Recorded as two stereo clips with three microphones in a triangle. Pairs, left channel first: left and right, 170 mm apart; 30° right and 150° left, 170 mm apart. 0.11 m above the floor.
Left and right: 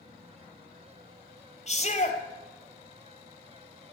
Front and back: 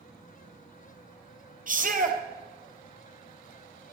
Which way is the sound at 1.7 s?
130° left.